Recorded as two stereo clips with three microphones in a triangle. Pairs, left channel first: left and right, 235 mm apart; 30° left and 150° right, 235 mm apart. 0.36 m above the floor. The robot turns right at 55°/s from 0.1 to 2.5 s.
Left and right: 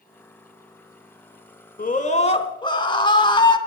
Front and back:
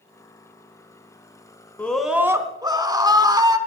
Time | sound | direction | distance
1.8 | a scream | 110° left | 1.5 m